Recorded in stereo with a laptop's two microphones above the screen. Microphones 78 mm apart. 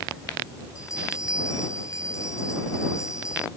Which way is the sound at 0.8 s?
40° left (ahead or behind).